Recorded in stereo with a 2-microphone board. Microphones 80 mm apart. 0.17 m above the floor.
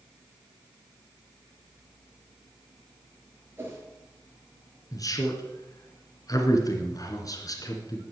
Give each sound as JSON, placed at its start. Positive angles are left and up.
{"t": 3.6, "sound": "a whoosh", "side_deg": -30, "distance_m": 3.5}
{"t": 4.9, "sound": "a man speaking", "side_deg": 50, "distance_m": 2.0}